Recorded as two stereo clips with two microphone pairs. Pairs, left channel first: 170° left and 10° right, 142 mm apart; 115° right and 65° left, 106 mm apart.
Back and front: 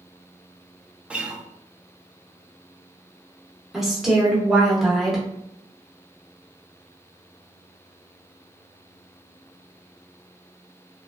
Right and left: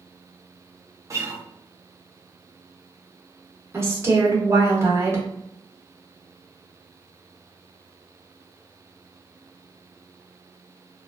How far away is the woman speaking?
About 0.8 m.